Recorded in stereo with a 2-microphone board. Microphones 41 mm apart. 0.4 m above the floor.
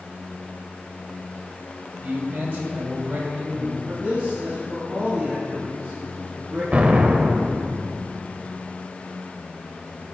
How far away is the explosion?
About 0.7 m.